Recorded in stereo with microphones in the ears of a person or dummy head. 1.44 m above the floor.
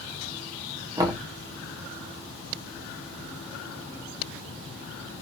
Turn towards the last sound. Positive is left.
turn(degrees=-20)  # may be behind; listen again after turning